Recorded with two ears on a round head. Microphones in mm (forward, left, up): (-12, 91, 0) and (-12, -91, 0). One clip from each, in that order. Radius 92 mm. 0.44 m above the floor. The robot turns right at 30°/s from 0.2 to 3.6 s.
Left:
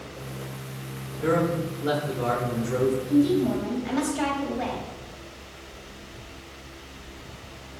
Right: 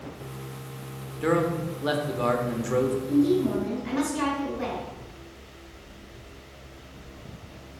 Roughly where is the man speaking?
Behind right.